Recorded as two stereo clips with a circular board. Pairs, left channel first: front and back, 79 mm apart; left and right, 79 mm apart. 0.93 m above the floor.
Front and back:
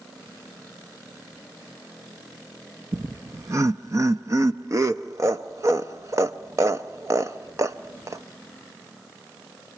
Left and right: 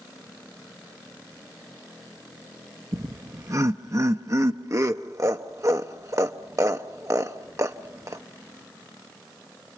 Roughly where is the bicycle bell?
No bicycle bell in this recording.